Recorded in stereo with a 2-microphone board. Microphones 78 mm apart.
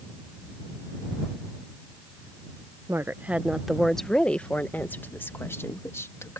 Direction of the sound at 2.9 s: 35° right (ahead or behind).